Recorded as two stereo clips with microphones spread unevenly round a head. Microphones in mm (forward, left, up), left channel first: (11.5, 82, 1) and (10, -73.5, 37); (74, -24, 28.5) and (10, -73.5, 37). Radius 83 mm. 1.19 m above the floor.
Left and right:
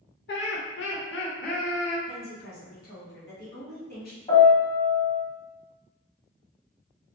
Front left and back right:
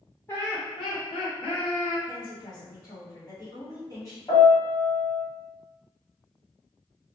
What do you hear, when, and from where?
0.3 s laughter: 115° left, 0.6 m; by 2.0 s 50° left, 1.2 m
2.1 s a woman speaking: 95° left, 1.4 m
4.3 s a piano: 35° left, 1.1 m